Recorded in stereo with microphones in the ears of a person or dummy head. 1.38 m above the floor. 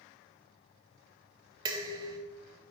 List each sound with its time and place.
1.6 s dishes clattering: 20° right (ahead or behind), 0.5 m